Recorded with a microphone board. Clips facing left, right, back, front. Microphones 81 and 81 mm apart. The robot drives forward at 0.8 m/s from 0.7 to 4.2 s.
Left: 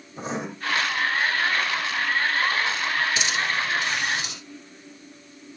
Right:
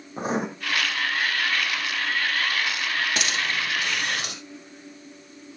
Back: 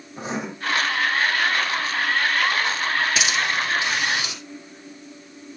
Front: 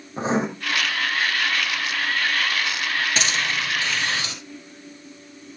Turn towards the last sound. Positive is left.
turn(degrees=-110)